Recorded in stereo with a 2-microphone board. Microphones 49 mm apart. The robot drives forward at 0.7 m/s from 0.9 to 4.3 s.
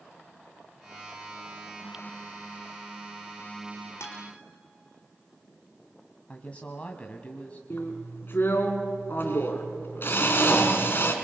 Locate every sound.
4.0 s a guitar: 70° left (ahead or behind), 4 m
6.3 s a woman speaking: 30° left (ahead or behind), 1.5 m
7.7 s a drill: 50° left (ahead or behind), 3 m